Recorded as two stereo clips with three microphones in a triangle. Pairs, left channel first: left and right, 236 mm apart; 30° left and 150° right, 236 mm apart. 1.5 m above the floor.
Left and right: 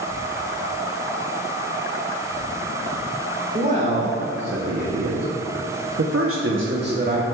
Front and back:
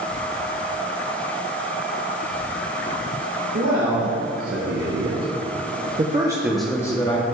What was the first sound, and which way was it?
A man speaking, 145° right.